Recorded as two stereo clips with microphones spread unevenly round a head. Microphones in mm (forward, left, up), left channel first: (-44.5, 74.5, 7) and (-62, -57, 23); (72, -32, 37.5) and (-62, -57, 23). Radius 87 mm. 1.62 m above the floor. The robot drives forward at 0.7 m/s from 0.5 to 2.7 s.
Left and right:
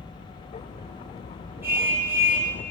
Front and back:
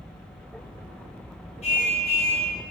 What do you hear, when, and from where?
1.6 s a car horn: 20° right, 4.5 m; by 2.5 s 25° right, 4 m